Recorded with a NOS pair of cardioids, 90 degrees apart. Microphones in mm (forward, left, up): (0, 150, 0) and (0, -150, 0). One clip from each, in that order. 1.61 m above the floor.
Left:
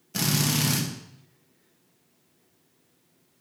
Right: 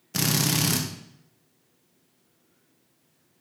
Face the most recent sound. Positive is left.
turn(degrees=-25)